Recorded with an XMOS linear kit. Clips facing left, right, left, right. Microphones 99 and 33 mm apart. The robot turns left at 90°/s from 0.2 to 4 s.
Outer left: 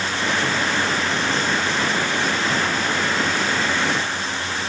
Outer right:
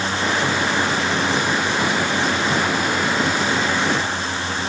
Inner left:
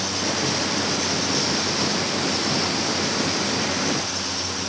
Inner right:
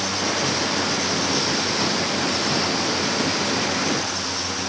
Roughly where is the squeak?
No squeak in this recording.